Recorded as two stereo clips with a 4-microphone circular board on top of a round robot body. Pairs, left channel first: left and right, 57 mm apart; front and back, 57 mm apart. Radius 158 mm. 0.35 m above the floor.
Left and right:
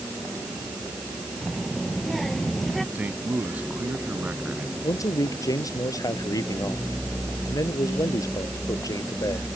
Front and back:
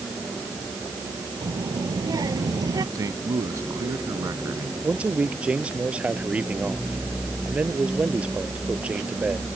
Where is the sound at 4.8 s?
110° left.